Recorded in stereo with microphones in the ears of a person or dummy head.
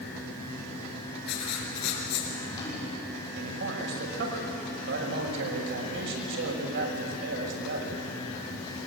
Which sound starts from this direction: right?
A man speaking, at 3.4 s.